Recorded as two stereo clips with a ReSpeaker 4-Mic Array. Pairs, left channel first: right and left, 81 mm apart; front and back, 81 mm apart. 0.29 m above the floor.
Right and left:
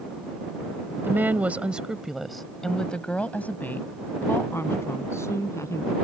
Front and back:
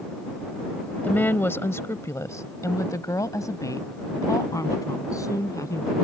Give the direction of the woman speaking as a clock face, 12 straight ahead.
10 o'clock.